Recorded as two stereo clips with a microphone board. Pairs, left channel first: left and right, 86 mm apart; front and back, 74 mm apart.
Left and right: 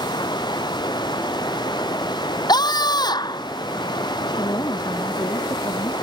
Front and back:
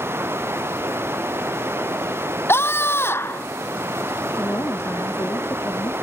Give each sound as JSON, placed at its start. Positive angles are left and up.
{"t": 0.0, "sound": "running water", "azimuth_deg": 125}
{"t": 2.5, "sound": "a scream", "azimuth_deg": 55}
{"t": 4.4, "sound": "a woman speaking", "azimuth_deg": 50}